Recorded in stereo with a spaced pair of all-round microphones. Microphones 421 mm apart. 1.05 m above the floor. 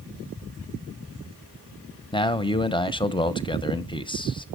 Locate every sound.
2.1 s a man speaking: 10° left (ahead or behind), 0.7 m